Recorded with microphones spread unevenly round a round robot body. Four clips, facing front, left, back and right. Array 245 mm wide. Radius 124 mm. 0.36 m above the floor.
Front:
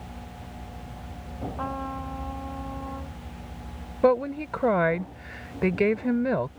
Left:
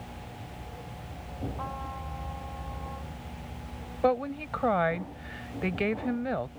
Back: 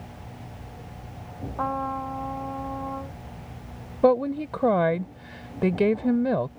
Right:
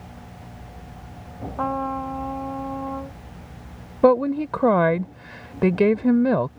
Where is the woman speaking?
100° right.